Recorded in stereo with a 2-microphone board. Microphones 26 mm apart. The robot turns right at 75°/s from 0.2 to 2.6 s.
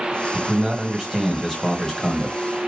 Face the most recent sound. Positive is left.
turn(degrees=100)